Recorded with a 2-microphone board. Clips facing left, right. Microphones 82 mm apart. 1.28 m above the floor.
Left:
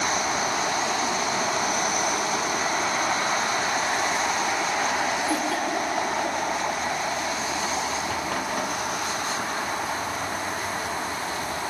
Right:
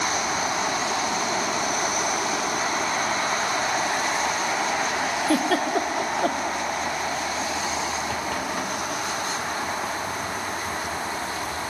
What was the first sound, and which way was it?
A giggle, 70° right (ahead or behind).